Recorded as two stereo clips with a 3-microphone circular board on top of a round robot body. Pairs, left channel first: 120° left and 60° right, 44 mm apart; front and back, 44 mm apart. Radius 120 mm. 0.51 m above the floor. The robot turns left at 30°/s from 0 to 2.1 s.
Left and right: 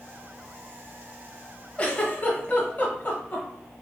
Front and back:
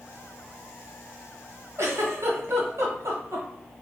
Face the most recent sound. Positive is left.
turn(degrees=175)